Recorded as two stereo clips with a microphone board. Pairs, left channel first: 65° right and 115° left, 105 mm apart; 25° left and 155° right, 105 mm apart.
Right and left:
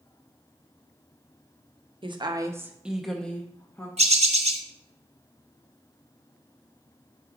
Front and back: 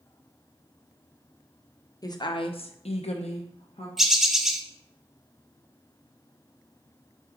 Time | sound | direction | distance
2.0 | a woman speaking | 75° left | 0.8 m
4.0 | a bird | 115° left | 0.9 m